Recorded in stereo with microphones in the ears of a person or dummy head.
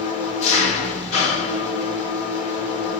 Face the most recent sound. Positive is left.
turn(degrees=40)  # may be behind; listen again after turning